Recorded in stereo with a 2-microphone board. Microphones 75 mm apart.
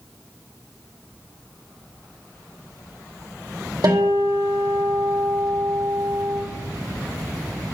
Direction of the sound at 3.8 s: 70° right (ahead or behind).